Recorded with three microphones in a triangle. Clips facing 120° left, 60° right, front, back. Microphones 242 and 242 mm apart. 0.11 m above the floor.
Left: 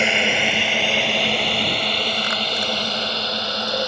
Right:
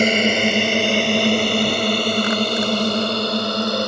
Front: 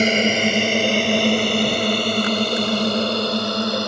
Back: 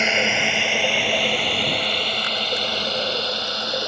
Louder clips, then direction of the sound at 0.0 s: Right 6 dB, front 7 dB; 35° right.